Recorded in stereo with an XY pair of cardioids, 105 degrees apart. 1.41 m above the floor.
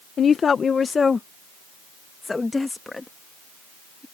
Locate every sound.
0.2 s a woman speaking: 45° left; by 4.0 s 15° left